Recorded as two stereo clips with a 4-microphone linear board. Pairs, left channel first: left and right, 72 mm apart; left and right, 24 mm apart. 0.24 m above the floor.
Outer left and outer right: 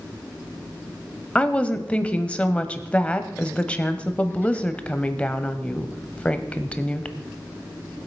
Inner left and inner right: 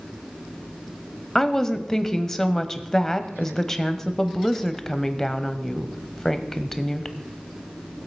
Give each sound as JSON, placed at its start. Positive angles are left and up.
{"t": 1.4, "sound": "a woman speaking", "side_deg": 15, "distance_m": 0.9}